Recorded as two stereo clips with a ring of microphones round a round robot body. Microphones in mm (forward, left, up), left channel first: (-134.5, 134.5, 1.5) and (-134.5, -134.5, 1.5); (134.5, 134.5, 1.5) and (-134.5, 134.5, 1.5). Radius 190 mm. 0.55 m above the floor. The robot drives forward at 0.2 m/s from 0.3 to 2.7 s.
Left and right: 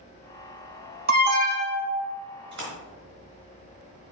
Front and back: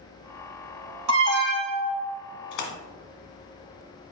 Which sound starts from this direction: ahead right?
A splash, at 2.5 s.